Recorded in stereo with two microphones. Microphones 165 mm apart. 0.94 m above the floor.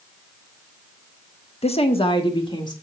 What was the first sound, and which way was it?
A woman speaking, 40° left (ahead or behind).